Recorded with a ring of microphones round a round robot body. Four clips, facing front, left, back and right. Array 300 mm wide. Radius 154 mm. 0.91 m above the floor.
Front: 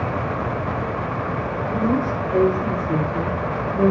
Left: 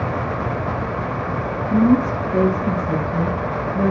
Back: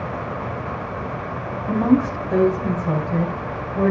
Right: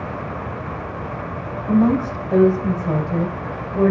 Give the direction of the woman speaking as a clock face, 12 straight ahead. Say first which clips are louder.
Left 1 dB, back 5 dB; 4 o'clock.